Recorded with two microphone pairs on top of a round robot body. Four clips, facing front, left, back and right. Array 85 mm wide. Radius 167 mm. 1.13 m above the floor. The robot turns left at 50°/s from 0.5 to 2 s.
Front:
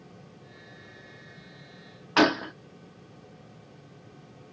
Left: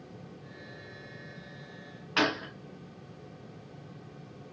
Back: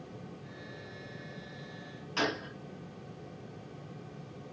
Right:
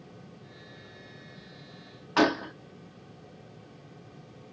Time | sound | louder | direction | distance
2.2 | a gunshot | right 5 dB, front 11 dB | 25° right | 0.6 m